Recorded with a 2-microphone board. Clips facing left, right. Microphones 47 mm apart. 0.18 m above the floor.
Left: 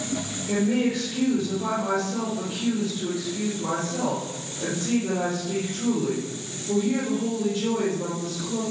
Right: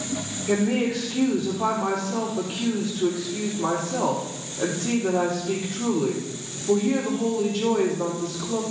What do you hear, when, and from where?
0.5 s a woman speaking: 70° right (ahead or behind), 4.5 m